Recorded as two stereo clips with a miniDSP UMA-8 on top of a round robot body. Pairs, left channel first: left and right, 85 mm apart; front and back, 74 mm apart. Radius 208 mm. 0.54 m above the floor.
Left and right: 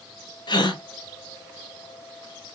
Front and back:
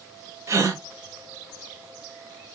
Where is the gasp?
125° left, 1.0 m.